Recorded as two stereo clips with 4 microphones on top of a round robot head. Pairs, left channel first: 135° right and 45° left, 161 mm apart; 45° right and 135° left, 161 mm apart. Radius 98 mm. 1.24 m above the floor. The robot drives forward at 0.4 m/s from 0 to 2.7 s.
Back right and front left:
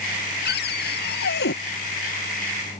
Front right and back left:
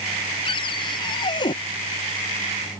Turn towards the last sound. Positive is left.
turn(degrees=-115)